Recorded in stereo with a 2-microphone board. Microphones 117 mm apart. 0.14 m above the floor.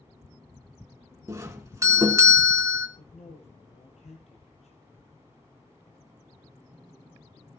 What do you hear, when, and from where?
1.3 s a doorbell: 25° right (ahead or behind), 1.8 m
3.0 s a man speaking: 65° left (ahead or behind), 3 m